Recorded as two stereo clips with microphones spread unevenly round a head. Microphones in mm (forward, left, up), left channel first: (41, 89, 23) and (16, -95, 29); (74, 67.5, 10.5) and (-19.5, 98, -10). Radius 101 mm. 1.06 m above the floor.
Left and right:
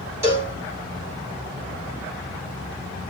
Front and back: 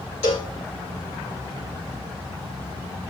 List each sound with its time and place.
0.2 s a cowbell: 25° right, 3.5 m